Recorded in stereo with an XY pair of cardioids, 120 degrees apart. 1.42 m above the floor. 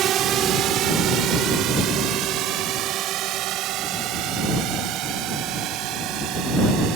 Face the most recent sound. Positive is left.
turn(degrees=-80)